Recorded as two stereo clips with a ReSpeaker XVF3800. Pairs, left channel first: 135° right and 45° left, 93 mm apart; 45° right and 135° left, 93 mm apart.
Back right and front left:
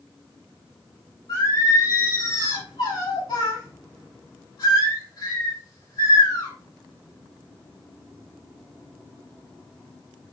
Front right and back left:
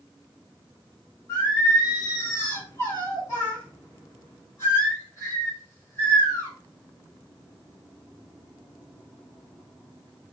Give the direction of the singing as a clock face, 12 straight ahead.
4 o'clock.